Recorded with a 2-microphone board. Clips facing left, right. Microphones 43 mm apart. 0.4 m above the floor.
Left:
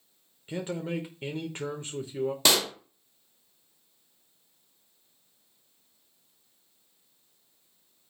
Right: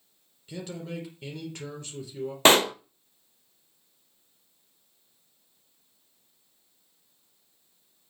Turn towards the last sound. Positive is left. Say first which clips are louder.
# right 8 dB
turn(degrees=-40)  # may be behind; listen again after turning